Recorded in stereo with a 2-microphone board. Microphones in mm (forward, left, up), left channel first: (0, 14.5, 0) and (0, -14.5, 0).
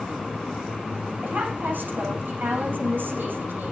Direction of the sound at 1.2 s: 80° right.